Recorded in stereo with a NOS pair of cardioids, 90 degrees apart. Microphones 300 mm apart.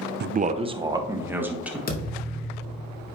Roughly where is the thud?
Ahead left.